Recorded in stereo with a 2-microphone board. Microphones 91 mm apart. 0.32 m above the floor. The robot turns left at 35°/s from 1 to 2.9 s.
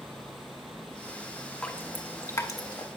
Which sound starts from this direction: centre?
Dripping, at 1.6 s.